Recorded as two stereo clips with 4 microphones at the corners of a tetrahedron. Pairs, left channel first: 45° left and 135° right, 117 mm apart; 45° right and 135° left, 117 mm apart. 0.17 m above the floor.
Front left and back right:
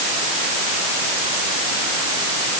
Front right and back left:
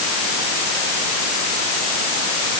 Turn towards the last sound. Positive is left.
No sound to turn to.